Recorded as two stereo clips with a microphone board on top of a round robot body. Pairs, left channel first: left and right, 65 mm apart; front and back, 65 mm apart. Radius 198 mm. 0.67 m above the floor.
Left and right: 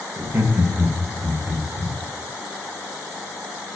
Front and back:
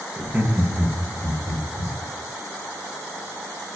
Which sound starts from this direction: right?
Laughter, at 0.2 s.